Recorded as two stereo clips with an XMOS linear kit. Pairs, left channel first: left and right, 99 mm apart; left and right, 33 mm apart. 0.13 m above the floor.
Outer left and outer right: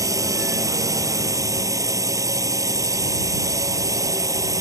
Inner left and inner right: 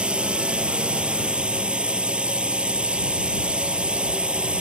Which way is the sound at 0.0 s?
35° right (ahead or behind).